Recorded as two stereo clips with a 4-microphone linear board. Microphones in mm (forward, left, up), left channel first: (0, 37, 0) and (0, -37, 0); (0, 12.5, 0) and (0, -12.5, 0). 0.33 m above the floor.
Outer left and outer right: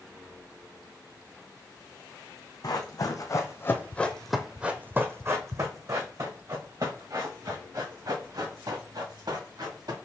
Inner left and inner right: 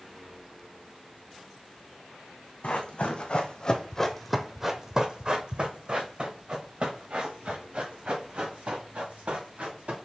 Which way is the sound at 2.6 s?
60° left (ahead or behind).